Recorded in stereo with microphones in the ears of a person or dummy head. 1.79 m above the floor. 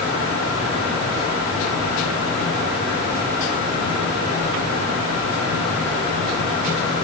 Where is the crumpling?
I don't hear crumpling.